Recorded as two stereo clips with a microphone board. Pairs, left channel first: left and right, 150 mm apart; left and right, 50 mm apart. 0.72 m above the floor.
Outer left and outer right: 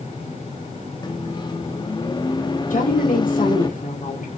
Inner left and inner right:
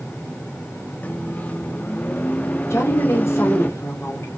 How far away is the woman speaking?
About 1.8 m.